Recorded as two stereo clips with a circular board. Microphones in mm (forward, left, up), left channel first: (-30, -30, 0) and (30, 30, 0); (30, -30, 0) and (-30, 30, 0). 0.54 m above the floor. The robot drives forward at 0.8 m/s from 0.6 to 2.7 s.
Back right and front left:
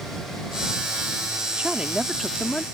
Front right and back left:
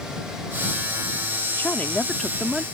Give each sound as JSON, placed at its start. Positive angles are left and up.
{"t": 1.6, "sound": "a woman speaking", "azimuth_deg": -15}